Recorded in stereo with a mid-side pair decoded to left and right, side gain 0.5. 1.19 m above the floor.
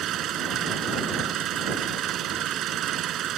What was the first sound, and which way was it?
An engine running, 60° right.